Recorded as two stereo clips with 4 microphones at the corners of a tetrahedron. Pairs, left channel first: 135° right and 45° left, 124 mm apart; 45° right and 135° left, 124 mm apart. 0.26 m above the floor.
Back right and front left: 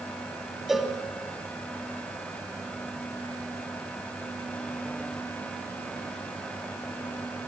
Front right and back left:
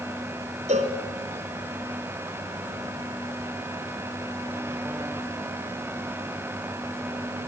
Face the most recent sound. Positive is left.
turn(degrees=130)